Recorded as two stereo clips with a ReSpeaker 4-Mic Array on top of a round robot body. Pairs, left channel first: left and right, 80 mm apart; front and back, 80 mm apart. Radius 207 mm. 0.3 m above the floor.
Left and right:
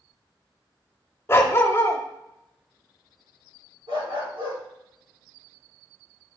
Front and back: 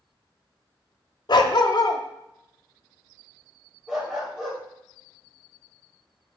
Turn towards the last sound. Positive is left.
turn(degrees=-100)